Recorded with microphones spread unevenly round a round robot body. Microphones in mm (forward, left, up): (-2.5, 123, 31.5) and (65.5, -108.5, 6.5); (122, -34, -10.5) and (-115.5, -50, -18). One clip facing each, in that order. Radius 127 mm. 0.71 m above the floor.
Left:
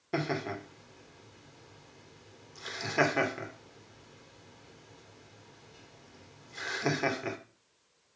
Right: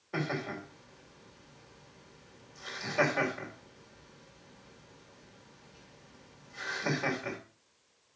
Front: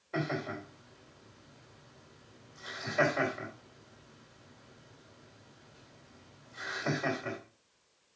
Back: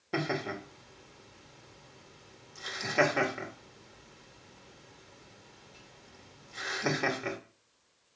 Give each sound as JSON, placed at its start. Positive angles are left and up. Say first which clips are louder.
{"t": 0.1, "sound": "laughter", "louder": "left 2 dB, back 2 dB", "azimuth_deg": 150, "distance_m": 2.5}